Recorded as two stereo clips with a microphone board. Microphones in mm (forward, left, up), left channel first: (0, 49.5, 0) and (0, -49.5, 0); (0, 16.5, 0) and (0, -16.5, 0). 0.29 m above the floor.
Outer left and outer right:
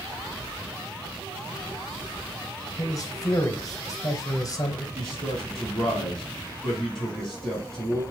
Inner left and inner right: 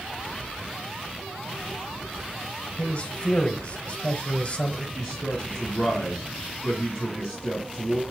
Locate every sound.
2.8 s a man speaking: 40° left (ahead or behind), 1.1 m
5.0 s a man speaking: centre (ahead or behind), 3 m